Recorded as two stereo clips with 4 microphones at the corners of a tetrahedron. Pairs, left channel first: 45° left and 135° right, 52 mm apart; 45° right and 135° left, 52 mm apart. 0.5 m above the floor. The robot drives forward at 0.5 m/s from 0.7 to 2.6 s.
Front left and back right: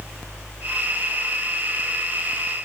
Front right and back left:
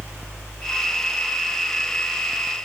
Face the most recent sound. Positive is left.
No sound to turn to.